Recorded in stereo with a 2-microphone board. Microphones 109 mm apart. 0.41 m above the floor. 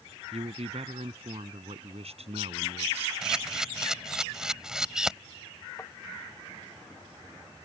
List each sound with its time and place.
0.3 s a man speaking: 70° right (ahead or behind)
3.2 s a camera shutter: 5° right (ahead or behind)
5.8 s tapping: 20° left (ahead or behind)